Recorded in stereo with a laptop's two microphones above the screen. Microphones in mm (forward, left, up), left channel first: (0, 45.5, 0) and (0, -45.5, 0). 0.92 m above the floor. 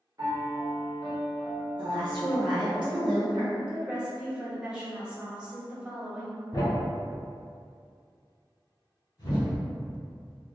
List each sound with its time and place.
0.2 s a piano: 40° right (ahead or behind), 0.7 m
1.8 s a woman speaking: 60° right (ahead or behind), 1.0 m
3.6 s a woman speaking: 10° right (ahead or behind), 1.0 m
6.5 s a thud: 45° left (ahead or behind), 1.5 m